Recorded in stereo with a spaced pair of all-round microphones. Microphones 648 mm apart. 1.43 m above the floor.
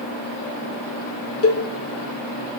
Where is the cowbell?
25° left (ahead or behind), 0.5 m.